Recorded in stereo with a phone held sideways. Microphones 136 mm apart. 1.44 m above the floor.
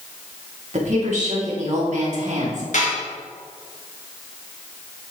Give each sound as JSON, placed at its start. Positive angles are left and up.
{"t": 0.7, "sound": "a woman speaking", "side_deg": -60, "distance_m": 2.5}
{"t": 2.7, "sound": "dishes clattering", "side_deg": 65, "distance_m": 2.5}